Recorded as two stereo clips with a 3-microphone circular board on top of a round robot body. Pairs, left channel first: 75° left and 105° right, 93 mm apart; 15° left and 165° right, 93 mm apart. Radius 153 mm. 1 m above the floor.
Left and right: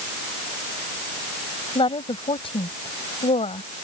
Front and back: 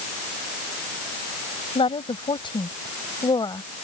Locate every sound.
1.8 s a woman speaking: 40° left; by 3.9 s 65° left